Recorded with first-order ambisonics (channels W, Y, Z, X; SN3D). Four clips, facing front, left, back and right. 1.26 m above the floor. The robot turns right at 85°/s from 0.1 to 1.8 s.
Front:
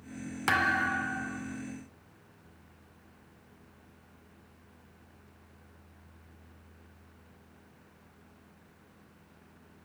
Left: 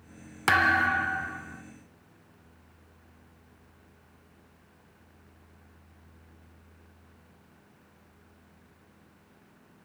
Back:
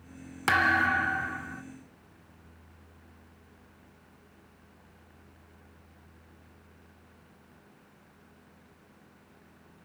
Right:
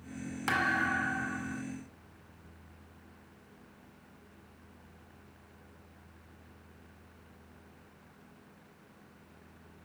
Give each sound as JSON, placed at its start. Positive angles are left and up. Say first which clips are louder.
{"t": 0.5, "sound": "a thud", "louder": "left 7 dB, back 4 dB", "azimuth_deg": 105, "distance_m": 0.7}